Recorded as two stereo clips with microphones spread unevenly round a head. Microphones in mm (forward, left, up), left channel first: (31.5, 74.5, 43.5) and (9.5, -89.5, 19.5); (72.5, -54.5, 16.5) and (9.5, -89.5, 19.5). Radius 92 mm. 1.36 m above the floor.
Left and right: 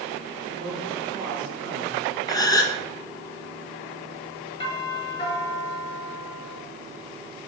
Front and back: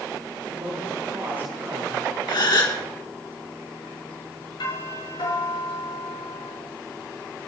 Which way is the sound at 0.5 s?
95° right.